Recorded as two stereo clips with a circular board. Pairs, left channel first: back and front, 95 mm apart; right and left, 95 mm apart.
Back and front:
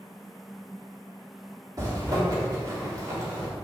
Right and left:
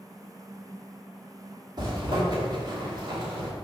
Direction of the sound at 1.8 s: 50° left.